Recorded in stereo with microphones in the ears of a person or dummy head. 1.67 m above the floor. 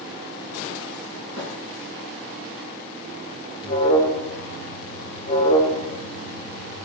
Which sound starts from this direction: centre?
A thud, at 1.4 s.